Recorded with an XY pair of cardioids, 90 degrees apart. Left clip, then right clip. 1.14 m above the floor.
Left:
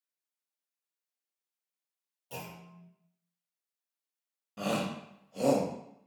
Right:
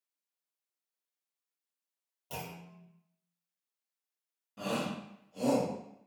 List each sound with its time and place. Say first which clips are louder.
2.3 s a clunk: right 1 dB; 60° right, 1.1 m
4.6 s a shout: left 2 dB; 50° left, 0.7 m